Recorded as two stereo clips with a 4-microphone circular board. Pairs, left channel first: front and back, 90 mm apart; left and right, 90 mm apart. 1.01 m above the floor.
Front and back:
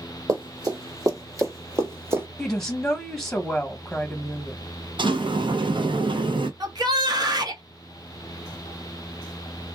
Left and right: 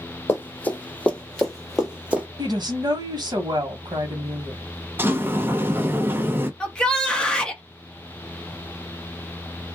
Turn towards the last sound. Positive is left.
turn(degrees=170)